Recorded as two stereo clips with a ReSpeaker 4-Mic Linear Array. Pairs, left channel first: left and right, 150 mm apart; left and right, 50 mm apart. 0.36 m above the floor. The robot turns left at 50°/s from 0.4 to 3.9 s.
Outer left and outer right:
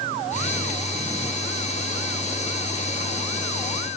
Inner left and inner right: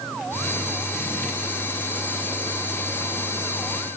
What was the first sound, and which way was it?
Only background noise.